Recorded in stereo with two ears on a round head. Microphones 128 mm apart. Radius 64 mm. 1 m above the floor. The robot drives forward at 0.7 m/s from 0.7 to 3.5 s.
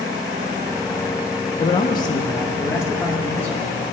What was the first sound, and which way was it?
A man speaking, 35° left (ahead or behind).